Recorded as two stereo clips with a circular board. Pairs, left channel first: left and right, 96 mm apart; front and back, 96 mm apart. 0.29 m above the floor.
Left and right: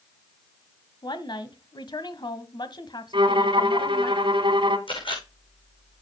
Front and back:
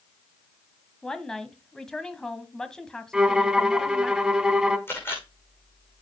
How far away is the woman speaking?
About 1.5 m.